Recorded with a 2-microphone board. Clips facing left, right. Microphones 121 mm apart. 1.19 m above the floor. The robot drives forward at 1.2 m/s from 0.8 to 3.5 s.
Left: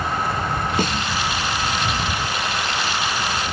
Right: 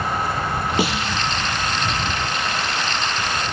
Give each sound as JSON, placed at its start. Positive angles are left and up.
{"t": 0.8, "sound": "a snare drum", "side_deg": -10}